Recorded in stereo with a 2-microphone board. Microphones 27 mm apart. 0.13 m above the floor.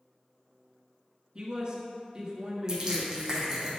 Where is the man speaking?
30° right (ahead or behind), 1.9 m.